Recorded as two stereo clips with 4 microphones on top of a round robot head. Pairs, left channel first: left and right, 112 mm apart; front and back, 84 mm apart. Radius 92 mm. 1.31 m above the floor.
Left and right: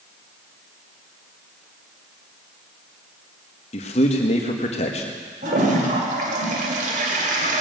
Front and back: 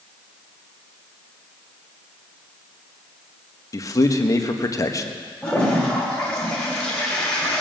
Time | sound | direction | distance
3.7 | a man speaking | 50° left | 1.5 m
5.4 | a toilet flushing | 85° right | 2 m